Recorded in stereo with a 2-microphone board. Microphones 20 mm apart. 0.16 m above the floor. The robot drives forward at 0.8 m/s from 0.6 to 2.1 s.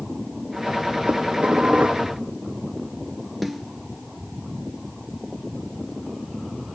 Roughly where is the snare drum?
Centre.